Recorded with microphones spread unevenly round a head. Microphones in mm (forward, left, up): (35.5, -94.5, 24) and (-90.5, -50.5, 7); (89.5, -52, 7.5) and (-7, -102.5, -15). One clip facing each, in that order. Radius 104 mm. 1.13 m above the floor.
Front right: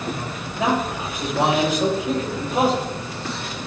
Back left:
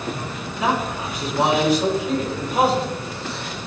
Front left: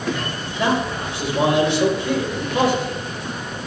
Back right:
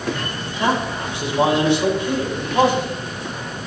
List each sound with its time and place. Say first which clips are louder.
0.6 s a man speaking: front right 1 dB, even; 40° left, 4 m